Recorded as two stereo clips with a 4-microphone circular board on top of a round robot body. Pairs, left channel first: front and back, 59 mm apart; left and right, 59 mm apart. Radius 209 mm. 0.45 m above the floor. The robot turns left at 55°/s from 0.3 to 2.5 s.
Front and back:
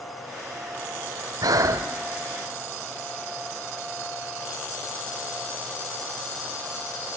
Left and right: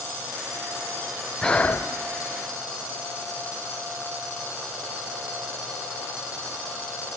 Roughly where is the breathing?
Behind.